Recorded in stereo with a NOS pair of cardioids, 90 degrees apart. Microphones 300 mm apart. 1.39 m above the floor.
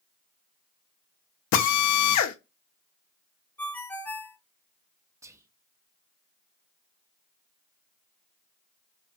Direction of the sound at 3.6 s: 5° left.